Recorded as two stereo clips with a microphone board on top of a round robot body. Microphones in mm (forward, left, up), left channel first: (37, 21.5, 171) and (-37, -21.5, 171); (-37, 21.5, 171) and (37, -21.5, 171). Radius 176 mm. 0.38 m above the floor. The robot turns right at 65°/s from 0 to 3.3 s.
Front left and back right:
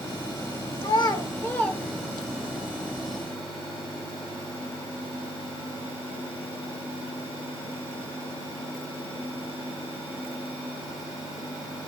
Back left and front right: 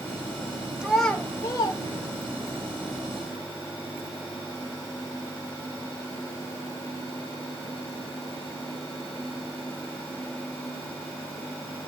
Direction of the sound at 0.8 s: 50° left.